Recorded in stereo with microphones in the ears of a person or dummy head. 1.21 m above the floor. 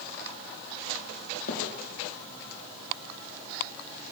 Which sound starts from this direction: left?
A thud, at 1.5 s.